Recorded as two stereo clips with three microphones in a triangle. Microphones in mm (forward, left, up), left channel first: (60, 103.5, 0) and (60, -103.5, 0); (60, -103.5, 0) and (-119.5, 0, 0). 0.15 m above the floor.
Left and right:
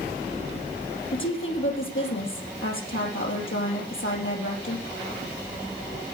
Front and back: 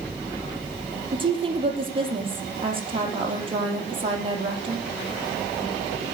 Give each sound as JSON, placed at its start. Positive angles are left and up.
{"t": 1.1, "sound": "a woman speaking", "azimuth_deg": 85, "distance_m": 4.0}